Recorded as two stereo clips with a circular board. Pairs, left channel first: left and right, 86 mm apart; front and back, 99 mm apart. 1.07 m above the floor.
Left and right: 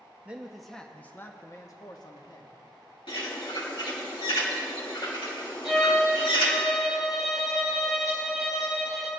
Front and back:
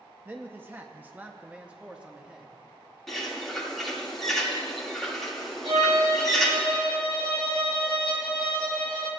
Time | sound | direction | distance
0.2 | a man speaking | 140° right | 0.7 m
3.1 | a bird | 90° left | 2 m
5.6 | a violin | straight behind | 5 m